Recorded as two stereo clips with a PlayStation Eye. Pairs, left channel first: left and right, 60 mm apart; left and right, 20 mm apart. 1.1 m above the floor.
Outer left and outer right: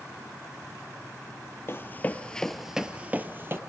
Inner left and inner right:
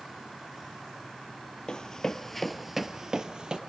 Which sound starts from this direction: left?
Running footsteps, at 1.7 s.